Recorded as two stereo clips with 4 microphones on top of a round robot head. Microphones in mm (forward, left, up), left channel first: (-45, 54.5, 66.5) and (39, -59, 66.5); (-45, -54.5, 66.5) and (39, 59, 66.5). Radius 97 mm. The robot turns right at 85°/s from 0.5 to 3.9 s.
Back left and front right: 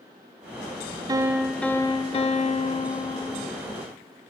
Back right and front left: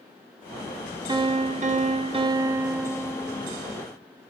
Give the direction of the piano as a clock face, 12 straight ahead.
12 o'clock.